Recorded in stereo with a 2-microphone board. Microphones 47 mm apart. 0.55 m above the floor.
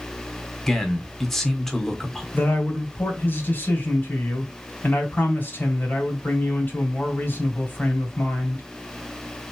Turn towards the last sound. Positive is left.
turn(degrees=50)  # may be behind; listen again after turning